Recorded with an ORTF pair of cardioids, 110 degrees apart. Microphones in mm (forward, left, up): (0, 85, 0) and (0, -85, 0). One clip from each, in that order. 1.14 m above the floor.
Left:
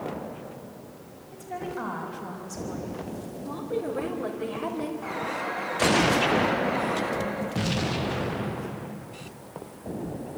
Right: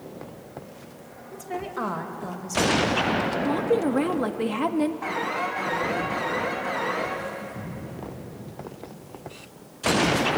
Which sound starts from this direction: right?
A woman speaking, at 3.5 s.